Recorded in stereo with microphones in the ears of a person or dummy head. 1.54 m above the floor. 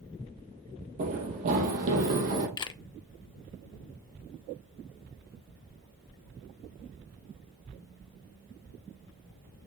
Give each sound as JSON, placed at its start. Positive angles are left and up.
{"t": 1.0, "sound": "running footsteps", "side_deg": -45, "distance_m": 2.5}
{"t": 2.6, "sound": "a camera shutter", "side_deg": 20, "distance_m": 0.5}